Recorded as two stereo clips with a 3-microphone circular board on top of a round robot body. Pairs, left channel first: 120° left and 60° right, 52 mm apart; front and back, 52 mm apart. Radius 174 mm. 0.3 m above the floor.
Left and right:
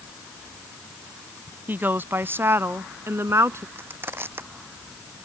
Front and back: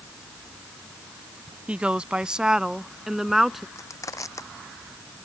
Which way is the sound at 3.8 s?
15° right.